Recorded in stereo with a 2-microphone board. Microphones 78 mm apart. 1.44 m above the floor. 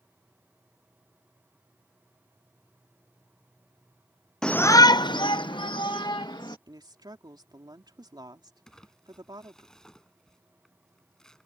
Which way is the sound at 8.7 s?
5° left (ahead or behind).